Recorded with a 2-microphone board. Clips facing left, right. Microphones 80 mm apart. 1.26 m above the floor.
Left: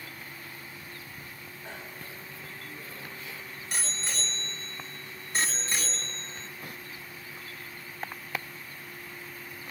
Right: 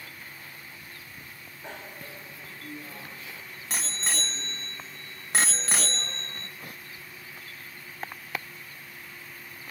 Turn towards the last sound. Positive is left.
turn(degrees=-65)  # may be behind; listen again after turning